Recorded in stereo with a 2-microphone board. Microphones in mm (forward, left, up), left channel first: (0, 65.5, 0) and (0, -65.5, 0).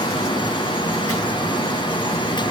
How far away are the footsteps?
No footsteps in this recording.